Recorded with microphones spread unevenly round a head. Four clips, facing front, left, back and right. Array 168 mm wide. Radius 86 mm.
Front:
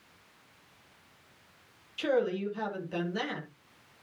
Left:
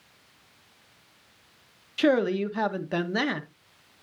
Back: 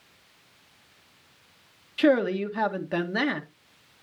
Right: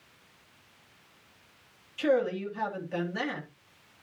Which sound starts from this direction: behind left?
A man speaking, at 2.0 s.